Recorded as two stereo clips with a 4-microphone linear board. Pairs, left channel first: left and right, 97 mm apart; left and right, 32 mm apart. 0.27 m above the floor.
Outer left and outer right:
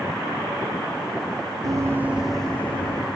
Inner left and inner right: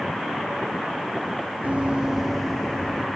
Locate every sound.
1.6 s running footsteps: 45° right (ahead or behind), 0.7 m; by 3.1 s 30° left (ahead or behind), 1.2 m